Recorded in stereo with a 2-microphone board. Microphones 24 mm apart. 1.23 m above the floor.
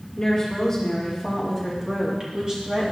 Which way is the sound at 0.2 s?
25° left (ahead or behind).